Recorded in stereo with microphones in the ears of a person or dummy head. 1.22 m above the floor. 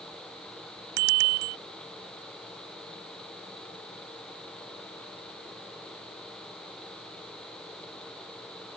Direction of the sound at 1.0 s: 75° right (ahead or behind).